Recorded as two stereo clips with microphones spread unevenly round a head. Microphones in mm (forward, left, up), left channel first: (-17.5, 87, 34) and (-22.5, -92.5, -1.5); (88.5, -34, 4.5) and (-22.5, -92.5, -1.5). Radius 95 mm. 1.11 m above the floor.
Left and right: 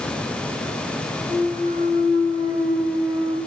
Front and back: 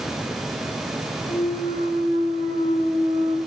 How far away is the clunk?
About 1.6 m.